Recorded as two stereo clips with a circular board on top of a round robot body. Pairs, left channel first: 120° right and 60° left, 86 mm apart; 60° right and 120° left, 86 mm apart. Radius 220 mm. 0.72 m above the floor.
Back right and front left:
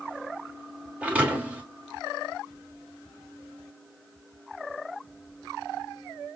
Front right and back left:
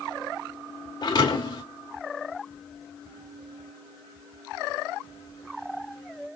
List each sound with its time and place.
1.0 s a thud: 15° right, 1.1 m